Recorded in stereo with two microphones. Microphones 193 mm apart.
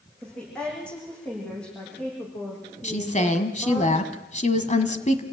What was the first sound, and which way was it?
A woman speaking, 5° left (ahead or behind).